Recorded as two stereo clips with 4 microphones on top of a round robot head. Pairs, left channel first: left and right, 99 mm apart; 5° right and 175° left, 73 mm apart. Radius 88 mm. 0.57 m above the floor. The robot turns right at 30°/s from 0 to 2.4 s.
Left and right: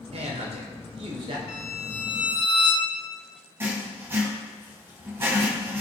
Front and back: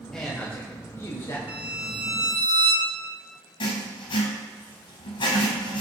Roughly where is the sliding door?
No sliding door in this recording.